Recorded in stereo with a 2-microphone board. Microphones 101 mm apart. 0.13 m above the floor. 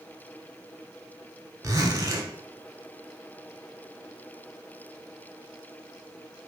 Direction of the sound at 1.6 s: 30° right (ahead or behind).